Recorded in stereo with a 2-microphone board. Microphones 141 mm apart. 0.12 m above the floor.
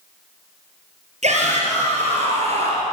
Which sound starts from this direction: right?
A shout, at 1.2 s.